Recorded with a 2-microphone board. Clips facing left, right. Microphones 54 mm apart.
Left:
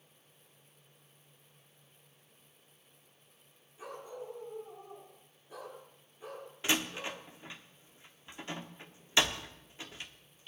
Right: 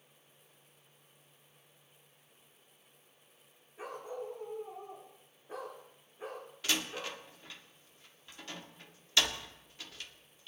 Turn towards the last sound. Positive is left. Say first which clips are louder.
# left 3 dB
turn(degrees=25)  # may be behind; listen again after turning